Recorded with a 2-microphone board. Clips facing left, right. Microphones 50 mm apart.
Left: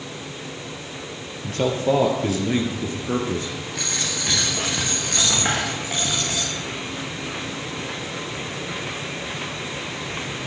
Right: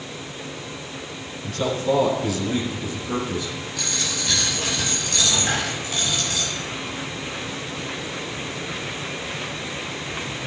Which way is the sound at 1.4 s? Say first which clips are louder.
Left 2 dB; 40° left (ahead or behind).